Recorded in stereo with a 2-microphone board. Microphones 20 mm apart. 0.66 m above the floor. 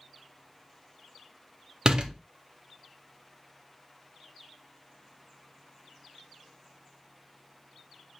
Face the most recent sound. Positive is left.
turn(degrees=-40)  # may be behind; listen again after turning